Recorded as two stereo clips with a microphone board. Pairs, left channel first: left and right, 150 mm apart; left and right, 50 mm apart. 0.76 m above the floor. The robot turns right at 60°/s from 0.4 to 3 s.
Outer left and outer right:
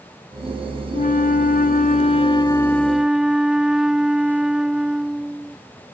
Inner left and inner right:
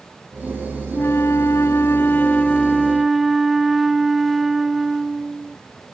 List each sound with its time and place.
0.9 s a flute: 60° left; by 5.6 s 175° right